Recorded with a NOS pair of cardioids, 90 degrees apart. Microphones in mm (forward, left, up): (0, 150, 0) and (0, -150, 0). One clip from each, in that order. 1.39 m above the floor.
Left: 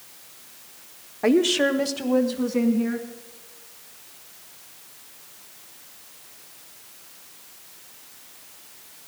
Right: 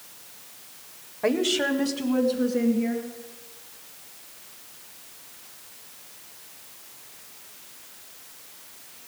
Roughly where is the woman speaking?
Ahead.